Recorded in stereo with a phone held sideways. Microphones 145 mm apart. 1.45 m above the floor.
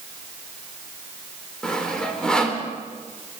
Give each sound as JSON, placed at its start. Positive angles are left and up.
{"t": 1.6, "sound": "sawing", "side_deg": 5, "distance_m": 3.0}